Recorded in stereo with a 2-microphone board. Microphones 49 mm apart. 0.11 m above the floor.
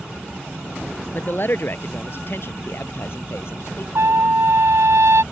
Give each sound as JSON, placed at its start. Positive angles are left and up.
{"t": 1.1, "sound": "a man speaking", "side_deg": 50}
{"t": 4.0, "sound": "a trumpet", "side_deg": -70}